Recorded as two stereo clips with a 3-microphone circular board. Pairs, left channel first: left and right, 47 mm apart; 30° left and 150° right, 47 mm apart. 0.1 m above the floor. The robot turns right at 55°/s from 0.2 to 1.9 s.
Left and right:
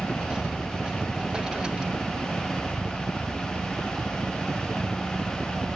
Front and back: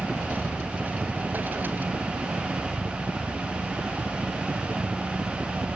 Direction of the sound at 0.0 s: 115° left.